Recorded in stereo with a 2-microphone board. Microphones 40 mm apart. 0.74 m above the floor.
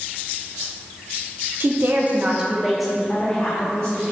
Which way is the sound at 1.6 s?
50° right (ahead or behind).